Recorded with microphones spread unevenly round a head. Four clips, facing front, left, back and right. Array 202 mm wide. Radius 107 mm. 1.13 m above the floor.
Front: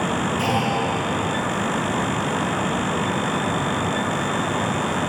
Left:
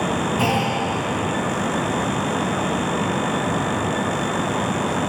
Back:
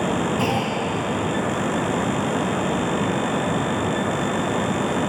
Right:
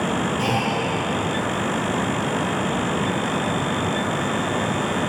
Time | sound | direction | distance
0.4 | a clunk | 110° left | 3 m